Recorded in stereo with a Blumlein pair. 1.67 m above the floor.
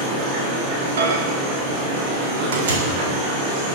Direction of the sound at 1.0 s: 60° right.